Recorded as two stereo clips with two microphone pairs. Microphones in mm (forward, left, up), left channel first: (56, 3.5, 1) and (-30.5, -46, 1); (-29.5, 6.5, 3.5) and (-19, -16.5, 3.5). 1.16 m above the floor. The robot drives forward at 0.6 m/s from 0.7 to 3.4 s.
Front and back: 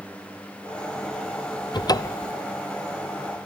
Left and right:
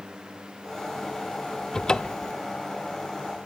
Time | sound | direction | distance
1.7 | a cupboard door | 55° left | 0.7 m